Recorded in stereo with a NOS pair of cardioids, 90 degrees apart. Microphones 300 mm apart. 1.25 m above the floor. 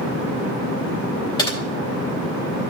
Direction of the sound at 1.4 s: 15° left.